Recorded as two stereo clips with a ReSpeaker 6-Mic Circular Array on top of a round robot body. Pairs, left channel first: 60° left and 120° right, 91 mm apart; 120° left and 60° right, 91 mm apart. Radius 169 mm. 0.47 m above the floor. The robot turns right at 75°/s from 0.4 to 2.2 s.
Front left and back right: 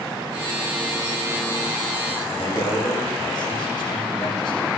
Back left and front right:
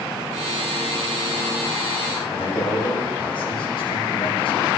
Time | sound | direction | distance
2.3 | a man speaking | 95° left | 3 m